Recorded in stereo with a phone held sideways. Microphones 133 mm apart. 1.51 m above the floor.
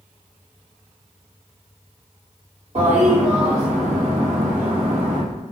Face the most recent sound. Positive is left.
turn(degrees=-55)  # may be behind; listen again after turning